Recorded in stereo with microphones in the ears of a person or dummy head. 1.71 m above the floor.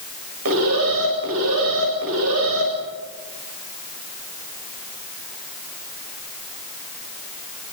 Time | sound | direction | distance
0.5 | an alarm | 80° right | 9 m